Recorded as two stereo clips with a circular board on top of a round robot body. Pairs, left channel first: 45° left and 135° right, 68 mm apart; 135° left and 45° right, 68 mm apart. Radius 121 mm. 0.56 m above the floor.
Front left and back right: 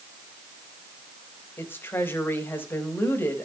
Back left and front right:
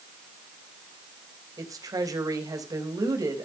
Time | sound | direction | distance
1.6 | a woman speaking | 15° right | 4.5 m